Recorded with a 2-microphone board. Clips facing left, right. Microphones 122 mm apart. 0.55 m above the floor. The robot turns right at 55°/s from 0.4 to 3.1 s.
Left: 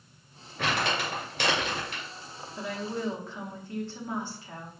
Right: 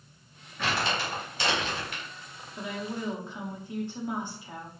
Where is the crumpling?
60° left (ahead or behind), 2 m; by 2.0 s 30° left (ahead or behind), 2 m.